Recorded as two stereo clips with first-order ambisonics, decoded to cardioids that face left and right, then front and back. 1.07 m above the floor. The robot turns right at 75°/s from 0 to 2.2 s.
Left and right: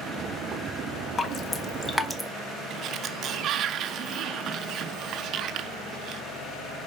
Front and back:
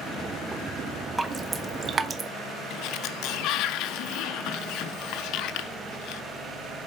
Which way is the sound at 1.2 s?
105° left.